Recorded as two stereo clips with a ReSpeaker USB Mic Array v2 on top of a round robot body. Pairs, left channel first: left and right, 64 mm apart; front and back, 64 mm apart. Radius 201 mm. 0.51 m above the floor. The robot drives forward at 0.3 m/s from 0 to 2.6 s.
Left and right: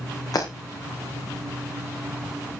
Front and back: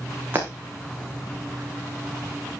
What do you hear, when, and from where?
0.3 s breaking glass: 120° left, 6 m